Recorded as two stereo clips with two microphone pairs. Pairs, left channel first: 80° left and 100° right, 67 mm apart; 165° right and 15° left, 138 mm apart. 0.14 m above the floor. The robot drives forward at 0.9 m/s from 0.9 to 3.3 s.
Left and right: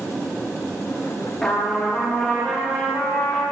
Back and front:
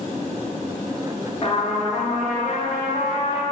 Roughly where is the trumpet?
Behind.